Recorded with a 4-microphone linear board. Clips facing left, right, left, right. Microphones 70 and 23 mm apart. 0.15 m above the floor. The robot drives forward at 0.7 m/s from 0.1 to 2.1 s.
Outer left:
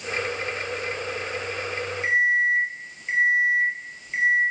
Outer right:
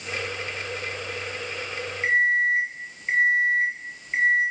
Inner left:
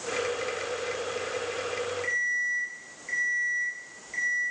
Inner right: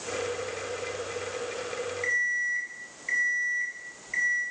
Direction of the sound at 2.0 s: 35° right (ahead or behind).